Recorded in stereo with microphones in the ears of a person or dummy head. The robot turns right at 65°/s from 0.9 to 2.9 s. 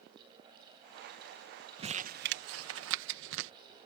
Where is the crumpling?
25° right (ahead or behind); by 3.5 s 80° right.